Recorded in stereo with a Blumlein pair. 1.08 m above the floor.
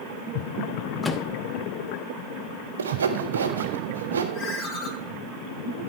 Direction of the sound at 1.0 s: 15° left.